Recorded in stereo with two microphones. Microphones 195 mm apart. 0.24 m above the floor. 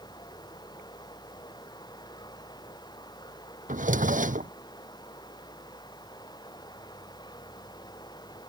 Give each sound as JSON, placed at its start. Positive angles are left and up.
{"t": 0.0, "sound": "running water", "side_deg": 20}
{"t": 3.7, "sound": "a drawer", "side_deg": -40}